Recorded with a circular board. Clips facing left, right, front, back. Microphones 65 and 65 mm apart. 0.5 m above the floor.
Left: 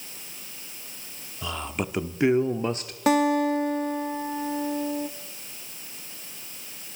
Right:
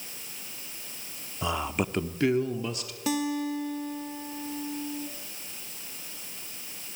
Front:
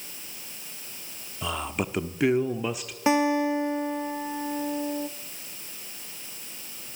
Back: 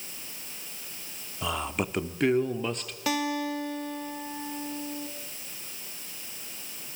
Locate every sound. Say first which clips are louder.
1.4 s a man speaking: right 2 dB, even; 95° right, 0.9 m; by 3.0 s 80° left, 1.1 m
3.1 s a guitar: left 8 dB, front 7 dB; 60° left, 0.7 m